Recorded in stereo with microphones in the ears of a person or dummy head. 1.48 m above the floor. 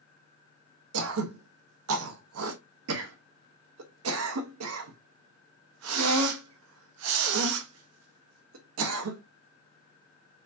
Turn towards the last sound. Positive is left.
turn(degrees=-85)